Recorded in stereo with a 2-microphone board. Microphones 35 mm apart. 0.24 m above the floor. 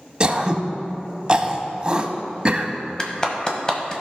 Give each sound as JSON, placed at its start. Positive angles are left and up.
{"t": 0.2, "sound": "throat clearing", "side_deg": -25, "distance_m": 0.7}
{"t": 3.0, "sound": "a clap", "side_deg": 20, "distance_m": 1.2}